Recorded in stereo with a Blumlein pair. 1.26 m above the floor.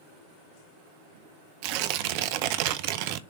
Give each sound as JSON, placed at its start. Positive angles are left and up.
{"t": 1.6, "sound": "tearing paper", "azimuth_deg": -45, "distance_m": 0.7}